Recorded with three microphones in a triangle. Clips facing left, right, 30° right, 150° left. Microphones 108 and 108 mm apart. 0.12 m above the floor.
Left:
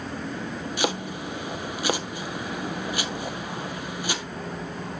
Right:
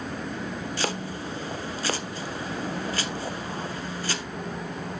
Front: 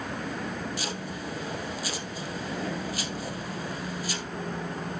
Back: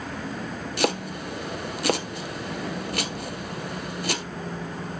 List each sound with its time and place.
0.8 s chopping: 165° left, 1.0 m